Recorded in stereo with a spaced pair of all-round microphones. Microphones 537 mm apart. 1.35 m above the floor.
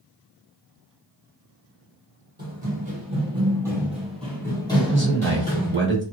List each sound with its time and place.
2.4 s running footsteps: 20° right (ahead or behind), 1.6 m; by 5.8 s 20° left (ahead or behind), 1.5 m
4.8 s a man speaking: 20° right (ahead or behind), 1.1 m